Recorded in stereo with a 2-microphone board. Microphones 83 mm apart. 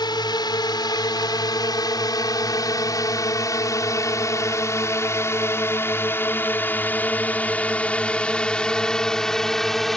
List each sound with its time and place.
0.0 s a drone: 65° left (ahead or behind); by 10.0 s 5° left (ahead or behind)